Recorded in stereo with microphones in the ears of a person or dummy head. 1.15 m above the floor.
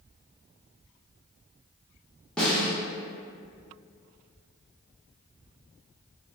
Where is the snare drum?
5° left (ahead or behind), 0.6 m.